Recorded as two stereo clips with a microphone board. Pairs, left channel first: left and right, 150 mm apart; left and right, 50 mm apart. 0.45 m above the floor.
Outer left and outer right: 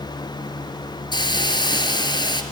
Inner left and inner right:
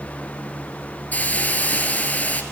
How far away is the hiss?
About 1.5 m.